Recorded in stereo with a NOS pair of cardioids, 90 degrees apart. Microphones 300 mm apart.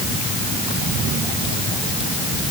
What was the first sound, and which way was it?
Only background noise.